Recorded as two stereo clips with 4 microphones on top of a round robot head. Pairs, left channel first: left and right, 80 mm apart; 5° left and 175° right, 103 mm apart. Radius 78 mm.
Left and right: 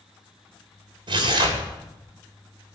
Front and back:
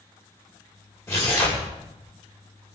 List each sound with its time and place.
1.1 s tearing paper: 65° right, 3.5 m